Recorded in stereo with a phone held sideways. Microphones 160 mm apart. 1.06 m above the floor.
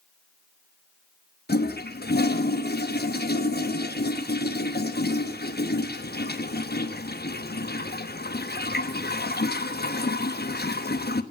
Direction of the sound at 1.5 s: 85° left.